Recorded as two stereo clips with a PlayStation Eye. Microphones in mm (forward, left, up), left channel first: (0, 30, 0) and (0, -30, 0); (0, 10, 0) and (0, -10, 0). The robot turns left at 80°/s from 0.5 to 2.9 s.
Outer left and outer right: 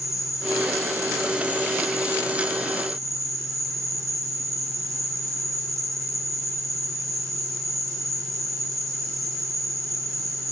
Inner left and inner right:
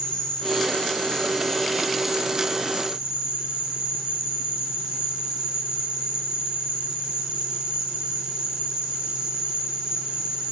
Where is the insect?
110° left, 3.5 m; by 10.5 s 80° right, 3.5 m.